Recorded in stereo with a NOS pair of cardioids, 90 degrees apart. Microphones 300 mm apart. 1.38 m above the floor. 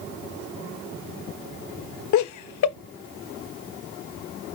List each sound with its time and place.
2.1 s laughter: 70° left, 0.9 m